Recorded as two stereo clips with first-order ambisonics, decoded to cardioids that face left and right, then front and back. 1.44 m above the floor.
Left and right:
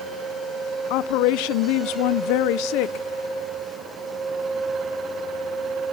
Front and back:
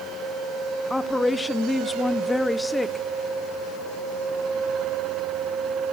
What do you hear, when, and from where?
0.9 s a woman speaking: 85° left, 1.0 m